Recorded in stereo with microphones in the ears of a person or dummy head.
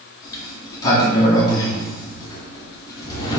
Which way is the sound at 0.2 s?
25° left (ahead or behind).